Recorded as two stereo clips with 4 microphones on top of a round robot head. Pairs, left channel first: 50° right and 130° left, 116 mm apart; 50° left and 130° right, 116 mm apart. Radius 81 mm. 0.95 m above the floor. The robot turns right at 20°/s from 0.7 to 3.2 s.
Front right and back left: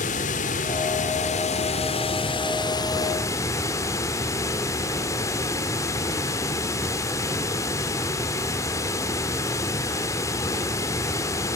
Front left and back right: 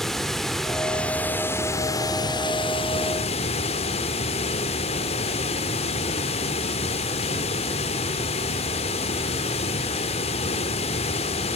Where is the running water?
35° right, 1.6 m; by 11.6 s 15° left, 1.6 m.